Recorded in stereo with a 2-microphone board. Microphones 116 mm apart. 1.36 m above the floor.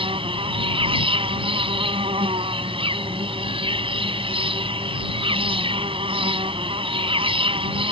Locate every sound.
0.0 s an insect: 50° right (ahead or behind)